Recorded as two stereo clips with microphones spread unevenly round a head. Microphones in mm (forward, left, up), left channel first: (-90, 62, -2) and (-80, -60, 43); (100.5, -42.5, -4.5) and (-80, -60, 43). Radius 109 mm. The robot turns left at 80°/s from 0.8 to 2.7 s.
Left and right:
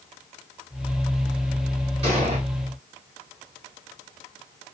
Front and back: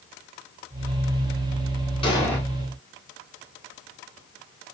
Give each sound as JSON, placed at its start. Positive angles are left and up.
{"t": 2.0, "sound": "an explosion", "azimuth_deg": -60, "distance_m": 2.0}